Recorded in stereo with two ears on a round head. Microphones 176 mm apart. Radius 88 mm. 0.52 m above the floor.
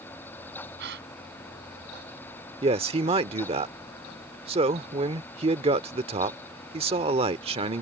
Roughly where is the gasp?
Right.